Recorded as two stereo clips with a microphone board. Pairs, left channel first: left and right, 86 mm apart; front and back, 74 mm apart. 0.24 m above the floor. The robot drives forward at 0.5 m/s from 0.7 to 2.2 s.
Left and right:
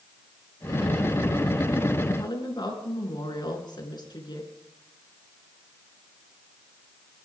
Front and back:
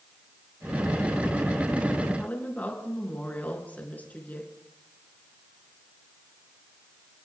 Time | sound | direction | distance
2.2 | a woman speaking | 65° left | 4 m